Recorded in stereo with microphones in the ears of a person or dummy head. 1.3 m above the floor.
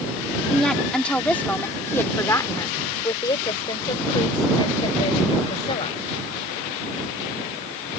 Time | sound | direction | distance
0.5 | a woman speaking | centre (ahead or behind) | ?